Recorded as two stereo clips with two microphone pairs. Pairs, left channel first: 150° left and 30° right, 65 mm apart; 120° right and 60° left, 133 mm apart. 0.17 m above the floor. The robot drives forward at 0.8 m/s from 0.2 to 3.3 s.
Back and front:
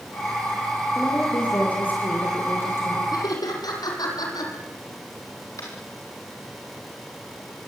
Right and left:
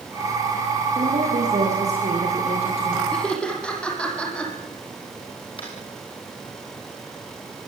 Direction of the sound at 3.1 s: 155° left.